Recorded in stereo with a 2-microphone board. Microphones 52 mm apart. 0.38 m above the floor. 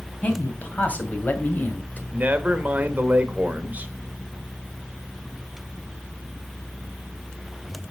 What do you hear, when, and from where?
0.2 s a man speaking: 30° left (ahead or behind), 2.5 m; by 2.0 s 35° left (ahead or behind), 1.6 m
2.1 s a man speaking: 35° right (ahead or behind), 1.1 m